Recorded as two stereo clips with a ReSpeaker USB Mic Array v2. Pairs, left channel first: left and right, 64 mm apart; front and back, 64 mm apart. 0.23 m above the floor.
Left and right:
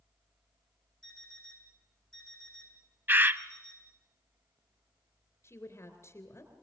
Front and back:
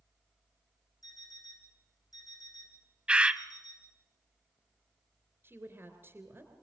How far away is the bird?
About 0.8 m.